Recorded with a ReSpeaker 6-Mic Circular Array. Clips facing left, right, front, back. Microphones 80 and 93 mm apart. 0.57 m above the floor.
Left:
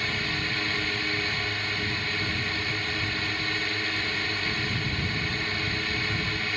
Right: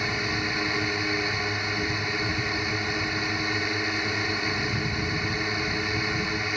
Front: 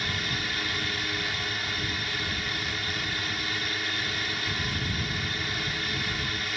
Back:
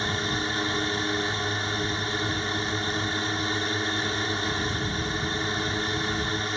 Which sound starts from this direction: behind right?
A drone, at 0.0 s.